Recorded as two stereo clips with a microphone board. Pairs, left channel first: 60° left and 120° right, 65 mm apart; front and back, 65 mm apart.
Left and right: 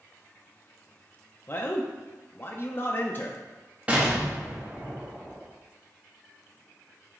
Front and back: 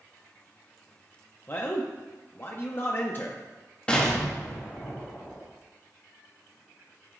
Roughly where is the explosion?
Ahead right.